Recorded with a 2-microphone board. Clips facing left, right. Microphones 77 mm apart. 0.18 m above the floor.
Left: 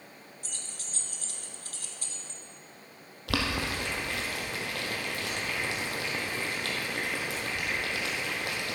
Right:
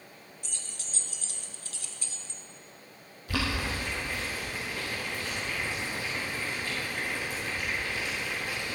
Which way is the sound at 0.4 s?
45° left (ahead or behind).